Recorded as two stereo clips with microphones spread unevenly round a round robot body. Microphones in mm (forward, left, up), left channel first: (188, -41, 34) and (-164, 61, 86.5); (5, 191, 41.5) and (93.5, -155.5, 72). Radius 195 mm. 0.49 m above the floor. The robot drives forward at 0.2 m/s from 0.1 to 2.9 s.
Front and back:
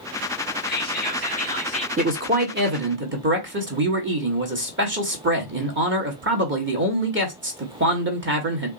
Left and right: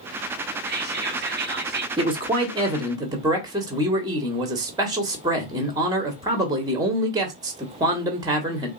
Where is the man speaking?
140° right, 0.9 m; by 8.7 s 155° right, 1.0 m.